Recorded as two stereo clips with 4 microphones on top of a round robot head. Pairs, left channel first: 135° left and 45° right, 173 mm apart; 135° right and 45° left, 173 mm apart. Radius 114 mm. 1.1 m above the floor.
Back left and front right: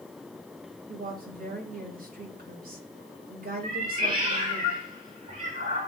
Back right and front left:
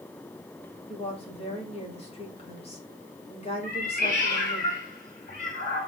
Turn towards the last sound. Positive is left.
turn(degrees=-90)